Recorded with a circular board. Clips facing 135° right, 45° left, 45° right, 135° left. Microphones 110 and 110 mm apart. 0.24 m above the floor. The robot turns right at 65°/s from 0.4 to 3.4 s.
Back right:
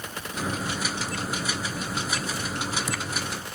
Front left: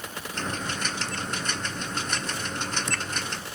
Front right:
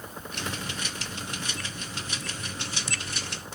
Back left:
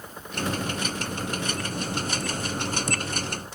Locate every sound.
Only background noise.